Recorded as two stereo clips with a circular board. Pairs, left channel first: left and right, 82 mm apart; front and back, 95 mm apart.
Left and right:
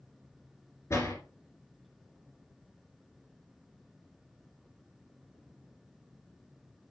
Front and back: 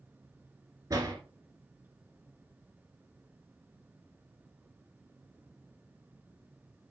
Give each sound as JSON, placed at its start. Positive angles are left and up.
{"t": 0.9, "sound": "a door slam", "azimuth_deg": 135, "distance_m": 1.9}